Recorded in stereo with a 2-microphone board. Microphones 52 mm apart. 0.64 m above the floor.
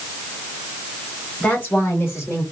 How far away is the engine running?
No engine running in this recording.